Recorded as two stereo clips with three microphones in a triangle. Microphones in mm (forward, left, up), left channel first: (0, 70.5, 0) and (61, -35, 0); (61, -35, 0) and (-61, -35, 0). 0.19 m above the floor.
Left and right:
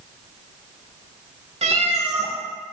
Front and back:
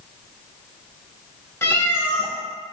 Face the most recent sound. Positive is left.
turn(degrees=-70)